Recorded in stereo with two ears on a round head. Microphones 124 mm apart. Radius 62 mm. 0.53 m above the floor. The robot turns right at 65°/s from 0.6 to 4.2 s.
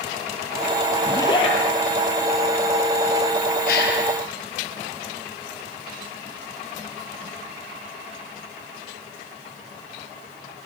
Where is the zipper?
15° left, 5.5 m; by 1.6 s 45° left, 5.5 m.